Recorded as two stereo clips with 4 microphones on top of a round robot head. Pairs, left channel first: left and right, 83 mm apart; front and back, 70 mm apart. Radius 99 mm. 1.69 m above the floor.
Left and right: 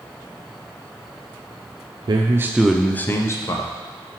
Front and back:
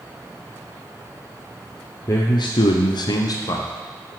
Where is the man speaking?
55° right, 0.9 m; by 3.7 s 40° left, 1.9 m.